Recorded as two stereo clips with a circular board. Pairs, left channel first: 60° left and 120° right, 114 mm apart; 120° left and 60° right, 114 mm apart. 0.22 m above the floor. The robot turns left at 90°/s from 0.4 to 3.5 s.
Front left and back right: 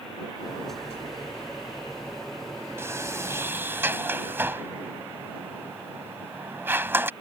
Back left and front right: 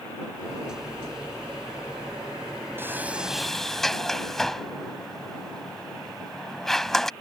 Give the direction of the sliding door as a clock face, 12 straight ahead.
3 o'clock.